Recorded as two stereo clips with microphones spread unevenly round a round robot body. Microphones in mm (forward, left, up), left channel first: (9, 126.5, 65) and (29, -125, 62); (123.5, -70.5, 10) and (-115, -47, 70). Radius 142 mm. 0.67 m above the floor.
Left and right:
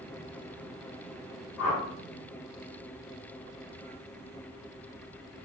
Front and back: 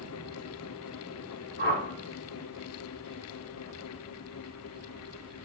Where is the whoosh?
120° left, 1.6 m.